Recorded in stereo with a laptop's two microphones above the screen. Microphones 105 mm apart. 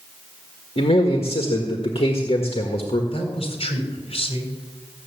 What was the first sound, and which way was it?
A man speaking, 65° left (ahead or behind).